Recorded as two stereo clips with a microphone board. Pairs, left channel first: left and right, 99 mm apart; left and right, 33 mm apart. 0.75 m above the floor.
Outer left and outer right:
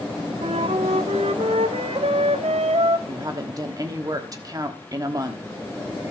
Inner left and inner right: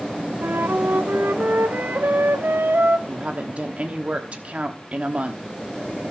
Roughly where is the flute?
Right.